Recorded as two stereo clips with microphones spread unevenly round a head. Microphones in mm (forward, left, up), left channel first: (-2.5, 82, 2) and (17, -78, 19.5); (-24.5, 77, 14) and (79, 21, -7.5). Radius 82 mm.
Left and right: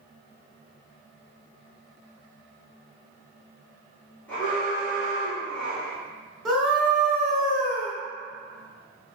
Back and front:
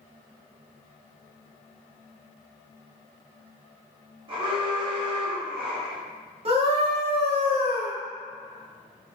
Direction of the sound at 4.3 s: 15° left.